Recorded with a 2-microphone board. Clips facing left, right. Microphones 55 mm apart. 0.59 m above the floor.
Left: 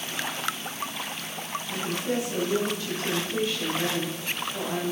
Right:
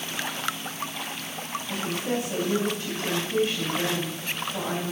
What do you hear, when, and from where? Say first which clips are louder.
1.7 s a woman speaking: even; 45° right (ahead or behind), 3.5 m